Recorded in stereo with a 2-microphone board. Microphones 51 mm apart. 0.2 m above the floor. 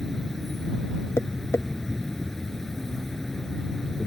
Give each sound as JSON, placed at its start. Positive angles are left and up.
{"t": 0.0, "sound": "an insect", "side_deg": 10}
{"t": 1.2, "sound": "tapping", "side_deg": 65}